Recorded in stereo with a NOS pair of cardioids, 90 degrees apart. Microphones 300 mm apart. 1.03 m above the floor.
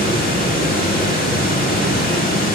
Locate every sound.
0.0 s running water: 30° left, 1.5 m